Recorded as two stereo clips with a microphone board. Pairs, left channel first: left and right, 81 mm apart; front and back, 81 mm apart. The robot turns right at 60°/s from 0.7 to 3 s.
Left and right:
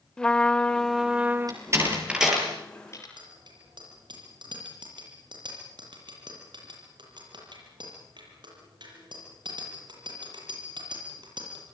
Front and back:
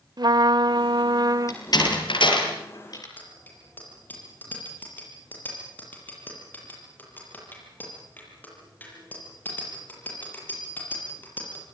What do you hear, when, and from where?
0.2 s a trumpet: 165° left, 0.6 m; by 1.6 s 135° right, 0.6 m
1.5 s a door slam: 50° right, 6.5 m; by 3.1 s 40° left, 6.5 m
3.2 s a bicycle bell: 70° right, 8 m